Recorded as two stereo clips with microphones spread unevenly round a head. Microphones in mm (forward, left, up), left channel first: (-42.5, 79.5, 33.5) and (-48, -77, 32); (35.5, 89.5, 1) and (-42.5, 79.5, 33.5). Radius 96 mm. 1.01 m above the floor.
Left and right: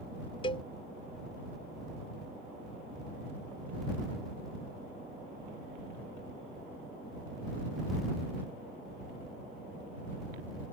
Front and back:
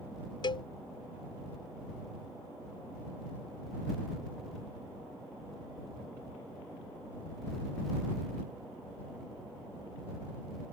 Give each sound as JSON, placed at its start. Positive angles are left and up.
{"t": 0.4, "sound": "a cowbell", "azimuth_deg": 25}